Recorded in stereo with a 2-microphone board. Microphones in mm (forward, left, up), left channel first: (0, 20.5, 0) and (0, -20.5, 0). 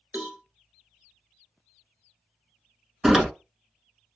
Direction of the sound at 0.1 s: 50° right (ahead or behind).